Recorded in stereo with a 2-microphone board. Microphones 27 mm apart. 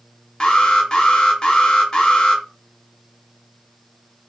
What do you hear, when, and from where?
0.4 s an alarm: 35° left (ahead or behind), 0.7 m